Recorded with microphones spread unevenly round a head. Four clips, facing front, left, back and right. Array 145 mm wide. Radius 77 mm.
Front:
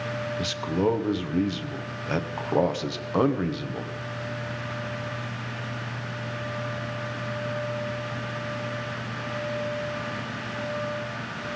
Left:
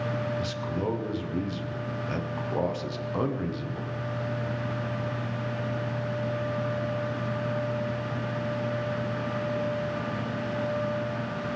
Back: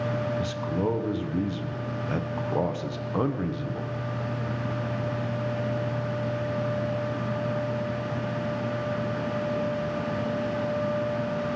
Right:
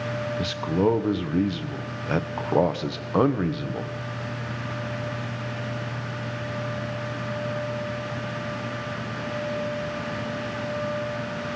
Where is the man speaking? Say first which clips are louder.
Right 7 dB, front 2 dB; 55° right, 0.9 m.